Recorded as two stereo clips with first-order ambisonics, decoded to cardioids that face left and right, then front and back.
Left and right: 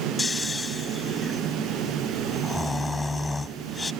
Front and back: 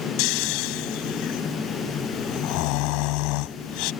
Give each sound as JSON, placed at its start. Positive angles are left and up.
{"t": 0.2, "sound": "snoring", "azimuth_deg": 10}